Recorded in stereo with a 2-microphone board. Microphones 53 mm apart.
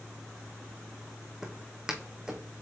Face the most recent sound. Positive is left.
turn(degrees=-15)  # may be behind; listen again after turning